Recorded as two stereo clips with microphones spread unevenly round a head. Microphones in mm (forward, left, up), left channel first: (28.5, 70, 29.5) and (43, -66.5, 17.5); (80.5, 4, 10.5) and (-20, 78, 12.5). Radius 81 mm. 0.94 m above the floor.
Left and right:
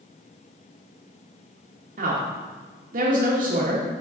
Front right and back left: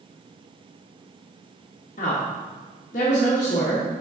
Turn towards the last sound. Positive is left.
turn(degrees=-75)